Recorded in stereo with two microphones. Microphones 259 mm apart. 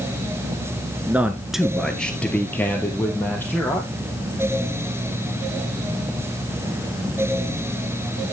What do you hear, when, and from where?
1.1 s a man speaking: 5° right (ahead or behind), 1.1 m; by 3.8 s 10° left (ahead or behind), 3.5 m